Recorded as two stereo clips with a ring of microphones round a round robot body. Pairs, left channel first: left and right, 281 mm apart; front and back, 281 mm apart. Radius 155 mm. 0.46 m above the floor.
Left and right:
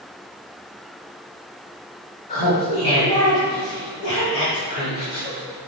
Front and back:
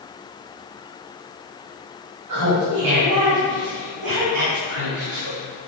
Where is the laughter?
160° left, 3.5 m.